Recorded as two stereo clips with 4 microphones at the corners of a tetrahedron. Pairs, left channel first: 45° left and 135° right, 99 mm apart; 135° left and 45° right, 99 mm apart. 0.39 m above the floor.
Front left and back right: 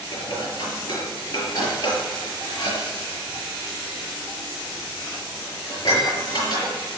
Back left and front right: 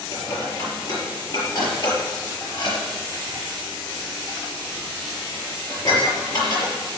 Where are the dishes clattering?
90° left, 5.5 m.